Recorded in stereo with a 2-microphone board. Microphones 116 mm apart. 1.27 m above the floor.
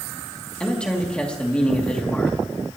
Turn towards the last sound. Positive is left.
turn(degrees=10)  # may be behind; listen again after turning